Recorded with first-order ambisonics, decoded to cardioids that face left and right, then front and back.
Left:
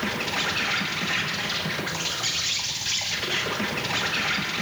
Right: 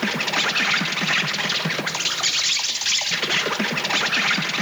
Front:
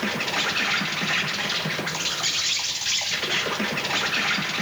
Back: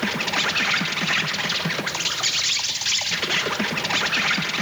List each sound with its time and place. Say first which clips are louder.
0.0 s an insect: right 5 dB, back 2 dB; 120° right, 0.9 m